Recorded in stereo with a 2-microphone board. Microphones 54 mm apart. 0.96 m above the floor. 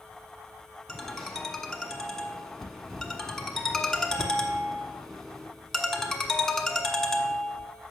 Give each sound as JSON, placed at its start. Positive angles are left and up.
{"t": 0.9, "sound": "a ringtone", "side_deg": 10, "distance_m": 1.1}